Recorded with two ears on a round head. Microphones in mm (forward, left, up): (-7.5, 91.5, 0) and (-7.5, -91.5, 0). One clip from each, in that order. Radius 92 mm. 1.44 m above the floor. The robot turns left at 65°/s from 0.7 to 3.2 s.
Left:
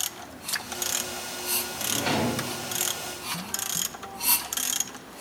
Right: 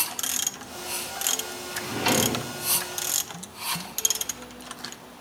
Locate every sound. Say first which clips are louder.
1.7 s a drawer: right 4 dB; 40° right, 0.8 m; by 2.4 s 80° right, 0.8 m